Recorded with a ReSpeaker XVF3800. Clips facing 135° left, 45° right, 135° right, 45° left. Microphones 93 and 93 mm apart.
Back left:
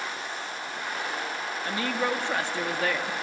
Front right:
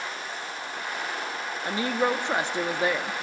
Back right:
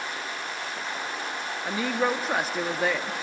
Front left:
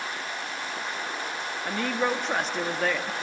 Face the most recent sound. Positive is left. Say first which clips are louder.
# front right 3 dB, back right 1 dB
turn(degrees=-60)